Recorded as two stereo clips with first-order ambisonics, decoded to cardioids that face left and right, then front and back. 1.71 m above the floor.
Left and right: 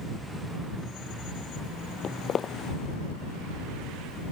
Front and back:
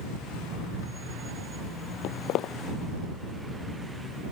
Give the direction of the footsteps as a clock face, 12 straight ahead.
11 o'clock.